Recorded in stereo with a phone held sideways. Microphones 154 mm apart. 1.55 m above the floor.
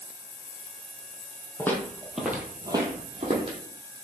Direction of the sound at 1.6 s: 15° left (ahead or behind).